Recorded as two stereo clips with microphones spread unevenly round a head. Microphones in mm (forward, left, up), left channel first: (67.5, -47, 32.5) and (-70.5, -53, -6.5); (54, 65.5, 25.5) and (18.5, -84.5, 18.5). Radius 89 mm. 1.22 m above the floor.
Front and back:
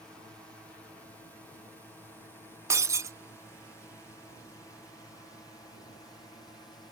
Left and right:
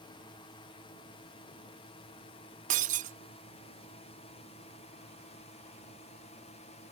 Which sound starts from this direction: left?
A drone, at 0.0 s.